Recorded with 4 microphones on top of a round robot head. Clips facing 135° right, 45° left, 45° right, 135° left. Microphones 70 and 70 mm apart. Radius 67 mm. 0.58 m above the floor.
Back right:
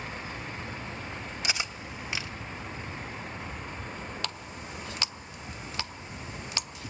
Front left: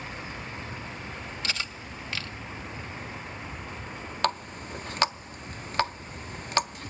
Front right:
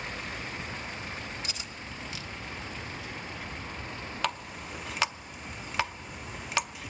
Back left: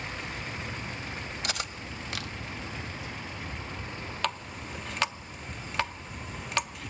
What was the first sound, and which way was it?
Cutlery clinking, 150° left.